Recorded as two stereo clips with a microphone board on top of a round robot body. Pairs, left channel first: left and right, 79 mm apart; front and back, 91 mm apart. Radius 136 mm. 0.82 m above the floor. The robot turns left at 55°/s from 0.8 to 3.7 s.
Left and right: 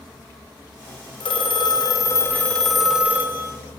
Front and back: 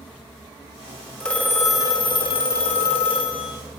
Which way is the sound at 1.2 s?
85° left.